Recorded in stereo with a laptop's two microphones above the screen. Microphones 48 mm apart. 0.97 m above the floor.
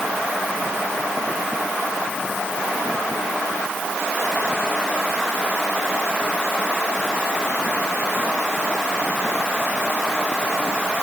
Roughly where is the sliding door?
I don't hear a sliding door.